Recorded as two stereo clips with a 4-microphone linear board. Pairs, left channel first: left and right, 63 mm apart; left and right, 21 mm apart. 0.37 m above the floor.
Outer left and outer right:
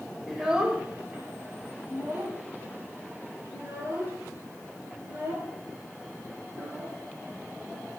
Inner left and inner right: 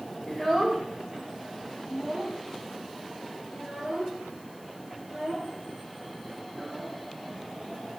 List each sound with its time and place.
0.3 s a child speaking: 5° right (ahead or behind), 1.0 m; by 7.0 s 55° right (ahead or behind), 7 m